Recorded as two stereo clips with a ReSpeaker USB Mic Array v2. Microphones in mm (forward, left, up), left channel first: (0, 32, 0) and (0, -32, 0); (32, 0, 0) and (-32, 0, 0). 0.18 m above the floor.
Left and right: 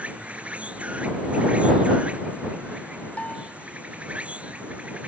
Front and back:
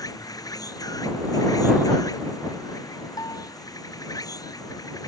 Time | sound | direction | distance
0.0 | an insect | 20° right | ?
3.2 | a bell | 20° left | ?